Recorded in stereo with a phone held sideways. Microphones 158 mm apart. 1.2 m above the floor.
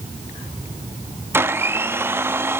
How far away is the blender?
About 0.7 m.